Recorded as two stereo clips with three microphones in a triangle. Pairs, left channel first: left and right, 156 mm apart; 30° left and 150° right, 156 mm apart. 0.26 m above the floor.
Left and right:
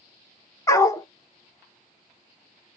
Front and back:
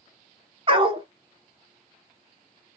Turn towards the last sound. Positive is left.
turn(degrees=160)